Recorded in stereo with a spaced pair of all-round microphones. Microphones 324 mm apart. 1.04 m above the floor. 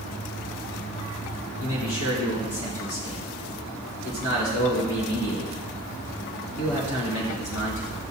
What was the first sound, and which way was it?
A man speaking, 60° left (ahead or behind).